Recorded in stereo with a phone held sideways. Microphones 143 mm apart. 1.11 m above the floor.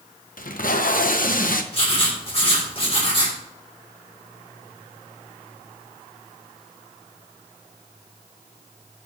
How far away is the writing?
About 3 m.